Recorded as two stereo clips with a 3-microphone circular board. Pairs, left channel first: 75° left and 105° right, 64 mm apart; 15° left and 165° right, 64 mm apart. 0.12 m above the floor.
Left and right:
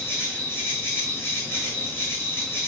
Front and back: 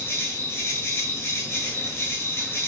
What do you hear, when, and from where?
0.0 s an insect: 40° left, 1.0 m